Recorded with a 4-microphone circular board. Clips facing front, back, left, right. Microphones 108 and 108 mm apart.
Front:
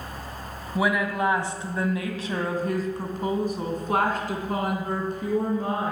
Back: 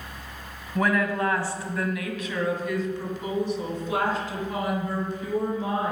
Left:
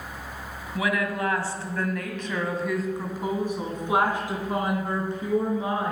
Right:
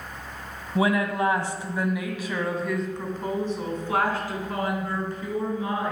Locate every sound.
0.8 s a woman speaking: 75° right, 1.4 m; by 5.9 s 30° left, 3 m